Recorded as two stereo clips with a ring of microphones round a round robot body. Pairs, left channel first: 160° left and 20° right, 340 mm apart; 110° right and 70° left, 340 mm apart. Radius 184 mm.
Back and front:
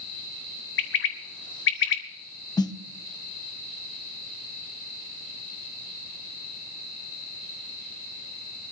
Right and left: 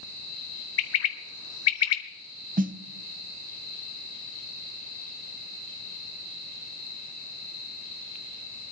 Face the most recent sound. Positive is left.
turn(degrees=95)